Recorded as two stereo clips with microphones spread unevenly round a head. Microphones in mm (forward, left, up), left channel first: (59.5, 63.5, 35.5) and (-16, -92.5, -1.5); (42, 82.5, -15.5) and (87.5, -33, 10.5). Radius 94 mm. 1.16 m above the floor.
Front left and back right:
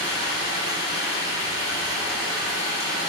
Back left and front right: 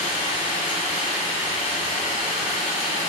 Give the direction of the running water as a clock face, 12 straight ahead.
9 o'clock.